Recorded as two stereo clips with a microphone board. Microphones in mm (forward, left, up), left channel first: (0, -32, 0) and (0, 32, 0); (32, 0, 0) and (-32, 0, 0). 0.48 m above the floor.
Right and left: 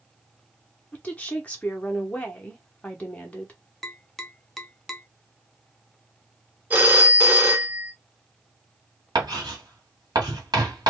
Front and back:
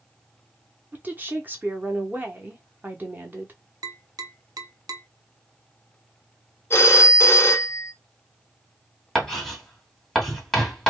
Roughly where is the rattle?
No rattle in this recording.